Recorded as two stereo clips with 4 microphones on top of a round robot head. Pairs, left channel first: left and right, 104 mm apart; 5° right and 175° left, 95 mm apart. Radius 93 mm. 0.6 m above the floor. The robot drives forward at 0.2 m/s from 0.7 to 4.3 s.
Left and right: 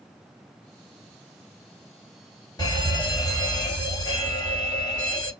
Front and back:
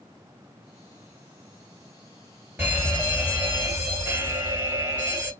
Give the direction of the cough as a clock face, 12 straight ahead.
No cough in this recording.